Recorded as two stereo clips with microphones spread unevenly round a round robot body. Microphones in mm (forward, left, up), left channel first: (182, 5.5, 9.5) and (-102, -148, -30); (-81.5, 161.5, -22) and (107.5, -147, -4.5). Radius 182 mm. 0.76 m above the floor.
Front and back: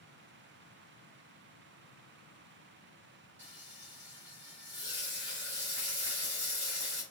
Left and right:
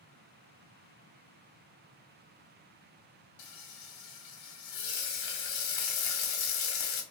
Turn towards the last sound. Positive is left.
turn(degrees=130)